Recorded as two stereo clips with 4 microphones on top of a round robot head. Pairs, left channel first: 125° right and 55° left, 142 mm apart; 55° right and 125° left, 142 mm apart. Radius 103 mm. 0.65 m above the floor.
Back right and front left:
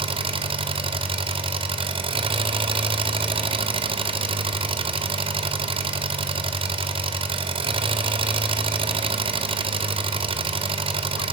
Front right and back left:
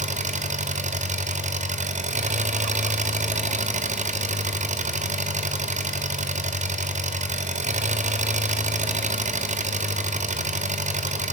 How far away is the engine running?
About 1.7 m.